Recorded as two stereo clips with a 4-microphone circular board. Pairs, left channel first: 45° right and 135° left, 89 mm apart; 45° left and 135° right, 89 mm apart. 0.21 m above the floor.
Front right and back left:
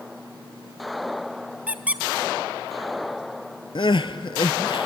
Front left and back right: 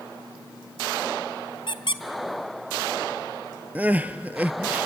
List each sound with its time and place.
1.7 s a squeak: 60° left, 0.7 m
3.8 s crying: 65° right, 0.7 m